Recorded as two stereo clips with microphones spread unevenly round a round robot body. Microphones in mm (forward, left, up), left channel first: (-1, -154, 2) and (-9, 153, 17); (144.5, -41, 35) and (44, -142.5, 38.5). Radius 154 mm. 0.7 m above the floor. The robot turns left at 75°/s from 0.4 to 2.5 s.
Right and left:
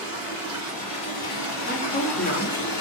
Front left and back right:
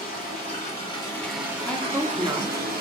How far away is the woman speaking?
About 0.9 m.